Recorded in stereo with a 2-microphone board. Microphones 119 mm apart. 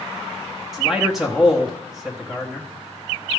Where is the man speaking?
Centre (ahead or behind), 1.1 m.